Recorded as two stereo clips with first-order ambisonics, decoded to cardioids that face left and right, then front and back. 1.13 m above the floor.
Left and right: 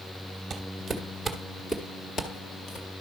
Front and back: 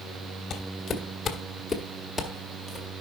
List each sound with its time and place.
0.5 s footsteps: 25° right, 1.3 m; by 2.9 s 100° left, 1.4 m